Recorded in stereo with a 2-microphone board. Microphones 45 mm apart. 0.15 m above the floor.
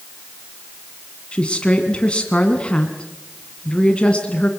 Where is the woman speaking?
25° left (ahead or behind), 1.8 m.